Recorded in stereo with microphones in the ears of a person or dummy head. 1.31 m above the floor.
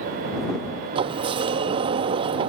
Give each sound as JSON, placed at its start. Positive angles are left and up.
{"t": 0.9, "sound": "a sliding door", "side_deg": -25}